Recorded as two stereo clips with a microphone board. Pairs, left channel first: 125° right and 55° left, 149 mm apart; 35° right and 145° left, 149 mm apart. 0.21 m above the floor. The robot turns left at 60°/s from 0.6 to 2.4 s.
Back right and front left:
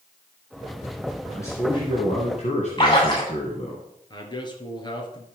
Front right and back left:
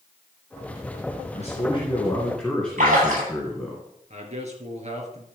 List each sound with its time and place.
1.3 s a man speaking: 55° right, 2 m; by 3.8 s 115° right, 2 m
2.8 s a splash: straight behind, 6 m
4.1 s a man speaking: straight behind, 2.5 m